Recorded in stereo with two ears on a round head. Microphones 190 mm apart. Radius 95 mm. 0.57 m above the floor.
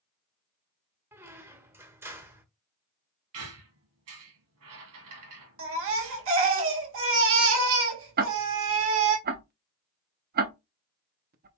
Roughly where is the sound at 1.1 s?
Centre.